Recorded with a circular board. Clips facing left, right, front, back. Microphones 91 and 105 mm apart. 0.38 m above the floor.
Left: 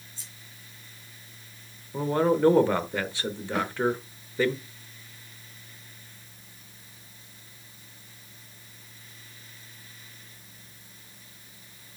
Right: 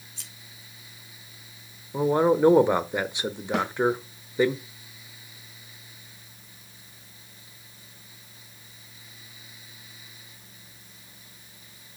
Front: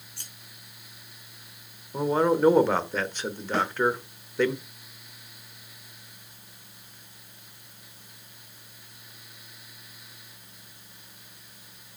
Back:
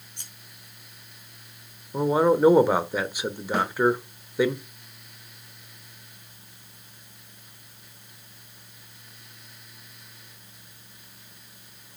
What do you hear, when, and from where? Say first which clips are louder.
0.2 s scissors: right 1 dB, even; 110° right, 4.5 m
1.9 s a man speaking: right 3 dB, back 3 dB; 125° right, 0.9 m
3.5 s a snare drum: right 2 dB, back 1 dB; 100° right, 5.5 m